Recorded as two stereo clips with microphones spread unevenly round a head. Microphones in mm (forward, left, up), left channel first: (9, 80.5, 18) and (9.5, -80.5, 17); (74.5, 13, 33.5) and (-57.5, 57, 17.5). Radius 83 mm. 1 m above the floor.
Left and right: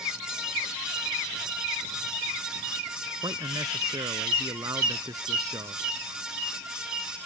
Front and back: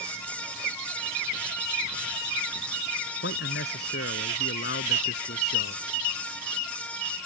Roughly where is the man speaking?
Ahead.